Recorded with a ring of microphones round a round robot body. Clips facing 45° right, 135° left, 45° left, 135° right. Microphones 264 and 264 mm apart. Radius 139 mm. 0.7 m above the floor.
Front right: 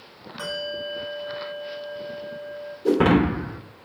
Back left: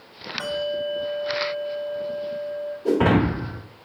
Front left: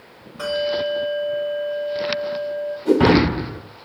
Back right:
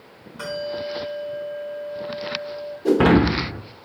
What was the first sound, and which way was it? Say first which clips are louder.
A bell: back left 6 dB, front left 6 dB; 80° right.